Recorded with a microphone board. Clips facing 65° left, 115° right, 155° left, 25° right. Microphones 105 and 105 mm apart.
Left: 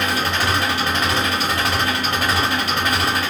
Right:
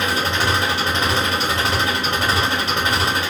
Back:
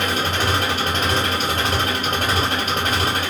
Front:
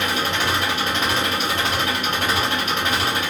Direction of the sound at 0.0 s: 170° right.